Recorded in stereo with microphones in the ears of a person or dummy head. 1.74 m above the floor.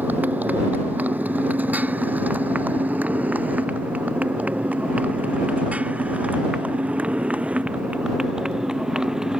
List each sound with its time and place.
0.0 s a motorcycle: 10° right (ahead or behind); by 9.4 s 5° right (ahead or behind)